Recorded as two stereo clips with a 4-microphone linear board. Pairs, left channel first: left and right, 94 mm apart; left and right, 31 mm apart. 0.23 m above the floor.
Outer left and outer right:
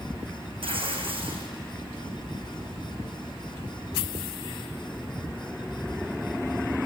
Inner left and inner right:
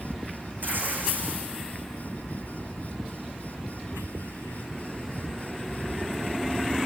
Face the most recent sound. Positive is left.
turn(degrees=-70)  # may be behind; listen again after turning